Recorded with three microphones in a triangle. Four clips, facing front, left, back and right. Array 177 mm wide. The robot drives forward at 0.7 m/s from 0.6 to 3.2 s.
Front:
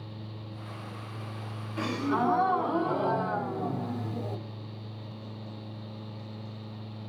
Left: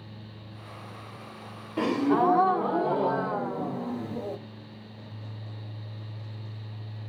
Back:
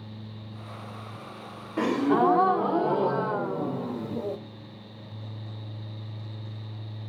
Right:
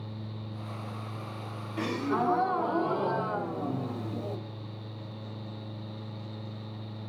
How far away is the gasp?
About 0.8 m.